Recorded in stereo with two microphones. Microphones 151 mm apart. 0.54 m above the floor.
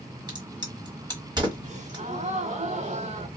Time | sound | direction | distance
0.3 | a crack | 30° right (ahead or behind) | 1.1 m
1.6 | a gasp | 50° right (ahead or behind) | 0.5 m